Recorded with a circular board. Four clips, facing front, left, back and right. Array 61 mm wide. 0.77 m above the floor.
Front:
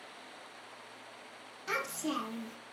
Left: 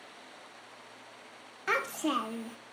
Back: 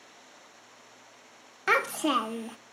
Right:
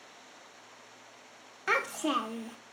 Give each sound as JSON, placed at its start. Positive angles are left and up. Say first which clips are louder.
{"t": 1.7, "sound": "a child speaking", "louder": "right 1 dB, back 10 dB", "azimuth_deg": -175, "distance_m": 0.6}